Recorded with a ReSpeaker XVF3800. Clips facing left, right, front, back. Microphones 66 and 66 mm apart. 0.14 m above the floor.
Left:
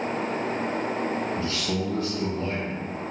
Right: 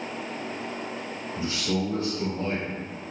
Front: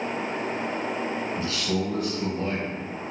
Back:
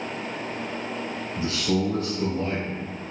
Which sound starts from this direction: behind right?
A man speaking, at 1.4 s.